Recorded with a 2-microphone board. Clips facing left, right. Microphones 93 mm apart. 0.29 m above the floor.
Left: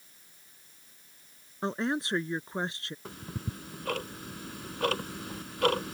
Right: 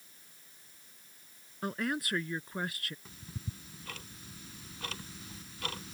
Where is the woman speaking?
25° left (ahead or behind).